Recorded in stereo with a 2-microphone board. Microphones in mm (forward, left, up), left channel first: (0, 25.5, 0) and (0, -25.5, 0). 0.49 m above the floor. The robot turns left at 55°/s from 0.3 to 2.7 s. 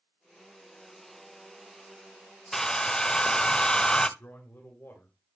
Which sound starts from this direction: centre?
A hair dryer, at 2.5 s.